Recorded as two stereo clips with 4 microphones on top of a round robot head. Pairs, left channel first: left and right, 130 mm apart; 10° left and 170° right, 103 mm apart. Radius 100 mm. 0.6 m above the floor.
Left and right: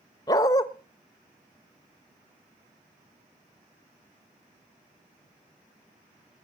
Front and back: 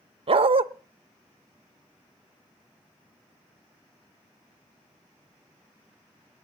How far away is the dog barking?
About 0.7 m.